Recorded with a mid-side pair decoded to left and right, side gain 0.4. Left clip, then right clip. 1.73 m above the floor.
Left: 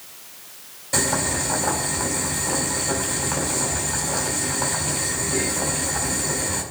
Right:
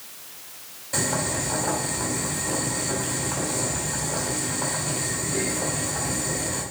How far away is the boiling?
About 4.5 m.